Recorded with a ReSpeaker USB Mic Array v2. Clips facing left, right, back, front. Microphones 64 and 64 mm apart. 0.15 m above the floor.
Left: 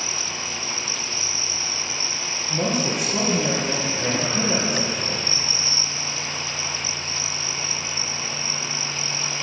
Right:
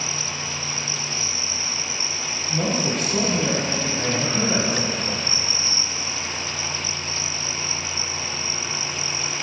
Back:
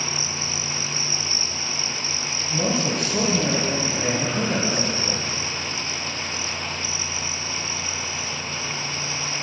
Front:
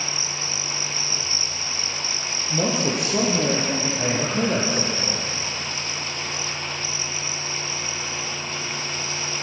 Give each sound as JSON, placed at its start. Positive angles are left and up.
{"t": 2.5, "sound": "a man speaking", "azimuth_deg": 10, "distance_m": 4.0}